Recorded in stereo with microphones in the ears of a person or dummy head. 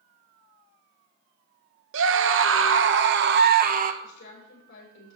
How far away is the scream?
About 1.3 m.